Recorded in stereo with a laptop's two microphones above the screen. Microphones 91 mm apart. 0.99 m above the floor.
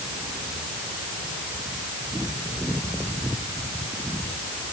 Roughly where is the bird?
I don't hear a bird.